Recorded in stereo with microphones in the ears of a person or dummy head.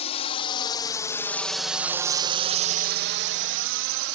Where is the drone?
40° left (ahead or behind); by 4.2 s 65° right (ahead or behind).